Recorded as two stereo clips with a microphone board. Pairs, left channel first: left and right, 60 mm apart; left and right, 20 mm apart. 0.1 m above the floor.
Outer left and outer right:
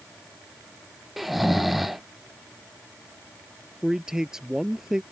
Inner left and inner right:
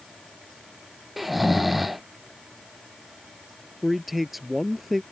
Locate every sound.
1.2 s snoring: centre (ahead or behind)
3.8 s a man speaking: 10° right (ahead or behind)